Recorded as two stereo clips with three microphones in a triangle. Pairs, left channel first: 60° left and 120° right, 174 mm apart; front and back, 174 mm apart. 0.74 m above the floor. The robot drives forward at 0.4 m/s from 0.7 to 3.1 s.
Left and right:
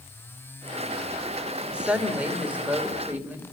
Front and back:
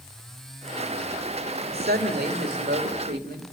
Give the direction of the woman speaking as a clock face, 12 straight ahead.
7 o'clock.